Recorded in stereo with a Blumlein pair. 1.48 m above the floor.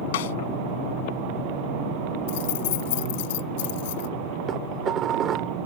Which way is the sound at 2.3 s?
50° left.